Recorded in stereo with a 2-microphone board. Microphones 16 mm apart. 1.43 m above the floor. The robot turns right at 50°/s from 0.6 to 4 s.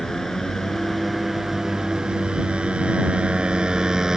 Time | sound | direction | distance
0.0 | a motorcycle | 155° left | ?